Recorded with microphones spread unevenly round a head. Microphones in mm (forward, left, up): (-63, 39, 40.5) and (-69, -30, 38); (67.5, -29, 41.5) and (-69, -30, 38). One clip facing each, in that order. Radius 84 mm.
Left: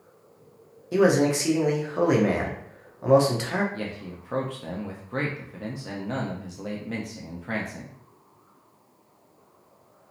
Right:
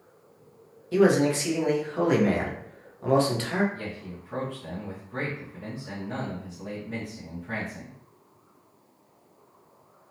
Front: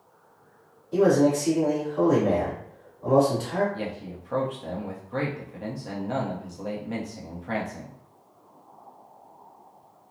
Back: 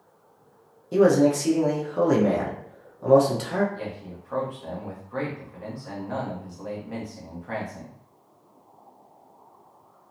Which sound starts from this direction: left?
A man speaking, at 3.7 s.